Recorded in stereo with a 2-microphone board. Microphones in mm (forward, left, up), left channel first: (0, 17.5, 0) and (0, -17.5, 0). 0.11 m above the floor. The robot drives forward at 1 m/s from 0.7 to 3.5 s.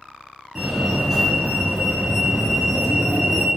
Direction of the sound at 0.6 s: 10° right (ahead or behind).